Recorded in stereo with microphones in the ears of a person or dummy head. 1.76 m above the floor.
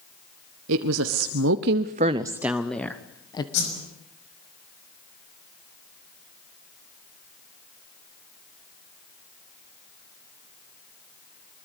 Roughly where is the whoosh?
Left.